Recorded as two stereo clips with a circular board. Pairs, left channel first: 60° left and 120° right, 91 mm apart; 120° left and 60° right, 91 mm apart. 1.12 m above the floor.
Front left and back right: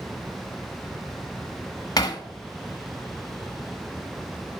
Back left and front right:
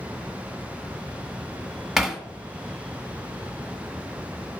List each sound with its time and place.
2.0 s hammering: 30° left, 0.8 m